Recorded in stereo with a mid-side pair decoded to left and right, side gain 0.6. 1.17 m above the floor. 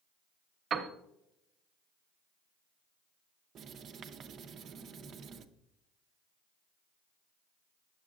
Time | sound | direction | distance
0.7 | a piano | 45° right | 1.1 m
3.5 | writing | 50° right | 0.7 m